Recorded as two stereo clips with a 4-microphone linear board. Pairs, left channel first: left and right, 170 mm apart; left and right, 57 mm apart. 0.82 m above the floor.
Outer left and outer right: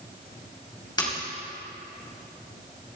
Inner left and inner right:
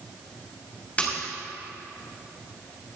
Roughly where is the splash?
Left.